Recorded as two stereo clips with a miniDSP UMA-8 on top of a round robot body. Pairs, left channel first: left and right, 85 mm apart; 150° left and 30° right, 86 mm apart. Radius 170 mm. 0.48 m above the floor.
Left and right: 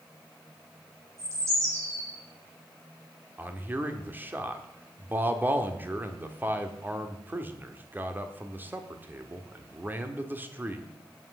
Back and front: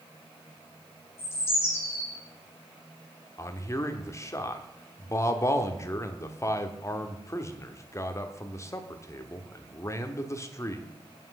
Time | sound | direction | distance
1.2 | a bird | 145° right | 7 m
3.4 | a man speaking | 155° right | 1.4 m